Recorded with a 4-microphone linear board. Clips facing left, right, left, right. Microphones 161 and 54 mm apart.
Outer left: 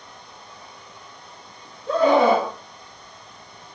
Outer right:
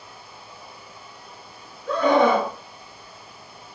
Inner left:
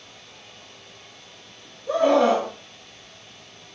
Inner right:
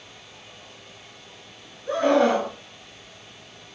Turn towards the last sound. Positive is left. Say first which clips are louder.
# outer left 2 dB, inner left 1 dB
turn(degrees=-55)  # may be behind; listen again after turning